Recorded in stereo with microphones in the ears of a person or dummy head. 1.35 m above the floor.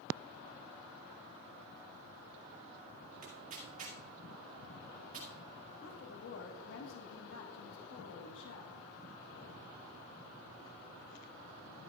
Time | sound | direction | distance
3.2 | tearing paper | 40° right (ahead or behind) | 1.6 m
5.8 | a woman speaking | 75° left (ahead or behind) | 1.3 m